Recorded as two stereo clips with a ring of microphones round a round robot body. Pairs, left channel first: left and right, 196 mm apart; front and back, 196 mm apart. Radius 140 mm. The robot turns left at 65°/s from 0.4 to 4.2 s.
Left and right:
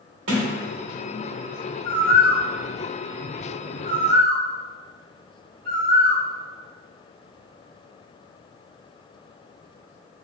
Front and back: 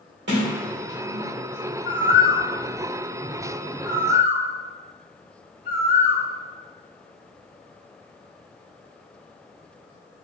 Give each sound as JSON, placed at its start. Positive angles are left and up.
{"t": 0.3, "sound": "a sliding door", "azimuth_deg": -130, "distance_m": 0.5}
{"t": 1.9, "sound": "a bird", "azimuth_deg": 25, "distance_m": 2.0}